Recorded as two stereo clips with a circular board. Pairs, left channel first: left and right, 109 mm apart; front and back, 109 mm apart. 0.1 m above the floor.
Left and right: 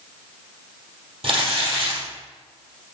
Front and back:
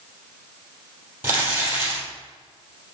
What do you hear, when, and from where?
1.2 s crumpling: 110° right, 3 m